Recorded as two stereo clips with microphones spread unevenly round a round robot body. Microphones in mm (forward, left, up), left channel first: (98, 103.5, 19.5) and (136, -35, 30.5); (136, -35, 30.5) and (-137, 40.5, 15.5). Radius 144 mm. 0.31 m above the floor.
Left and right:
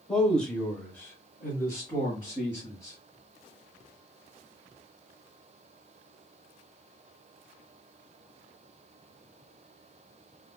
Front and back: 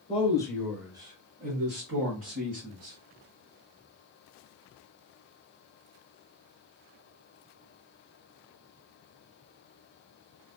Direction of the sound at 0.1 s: 30° left.